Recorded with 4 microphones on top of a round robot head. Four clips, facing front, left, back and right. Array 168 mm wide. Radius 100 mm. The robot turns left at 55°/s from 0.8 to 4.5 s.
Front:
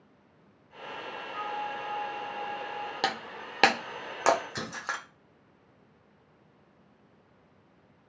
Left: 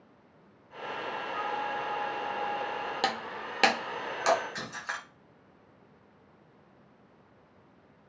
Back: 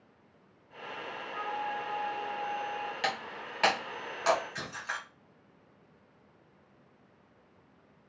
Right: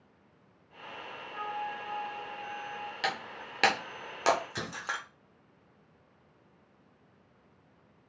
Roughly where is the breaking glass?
Ahead left.